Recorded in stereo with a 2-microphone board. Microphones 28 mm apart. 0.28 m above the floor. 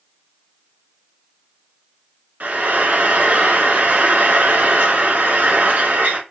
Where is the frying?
75° right (ahead or behind), 1.2 m.